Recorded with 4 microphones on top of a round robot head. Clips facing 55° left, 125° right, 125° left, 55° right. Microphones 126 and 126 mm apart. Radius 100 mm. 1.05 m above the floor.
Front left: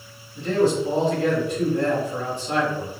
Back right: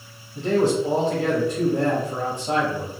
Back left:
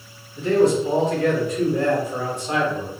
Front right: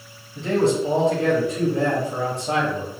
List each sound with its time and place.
0.3 s a man speaking: 110° right, 2 m